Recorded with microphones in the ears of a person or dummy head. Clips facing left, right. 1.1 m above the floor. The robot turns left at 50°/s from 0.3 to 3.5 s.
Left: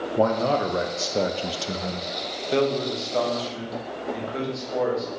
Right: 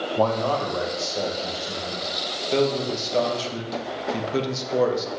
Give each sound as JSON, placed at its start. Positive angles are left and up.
{"t": 0.2, "sound": "a man speaking", "azimuth_deg": 165, "distance_m": 0.7}
{"t": 2.5, "sound": "a man speaking", "azimuth_deg": 10, "distance_m": 1.1}